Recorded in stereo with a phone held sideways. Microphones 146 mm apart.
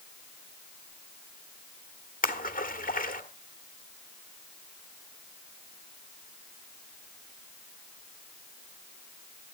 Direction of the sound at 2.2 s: 75° left (ahead or behind).